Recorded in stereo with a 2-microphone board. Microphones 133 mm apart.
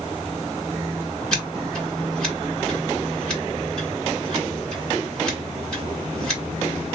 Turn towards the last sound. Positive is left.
turn(degrees=5)  # may be behind; listen again after turning